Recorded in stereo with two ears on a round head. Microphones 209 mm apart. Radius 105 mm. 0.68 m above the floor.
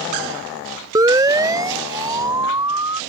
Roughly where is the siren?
Centre.